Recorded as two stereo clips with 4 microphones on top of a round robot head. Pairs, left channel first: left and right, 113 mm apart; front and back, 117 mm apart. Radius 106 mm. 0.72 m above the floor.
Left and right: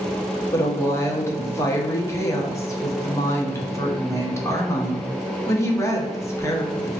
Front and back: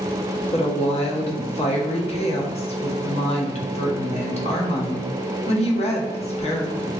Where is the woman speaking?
25° left, 1.0 m.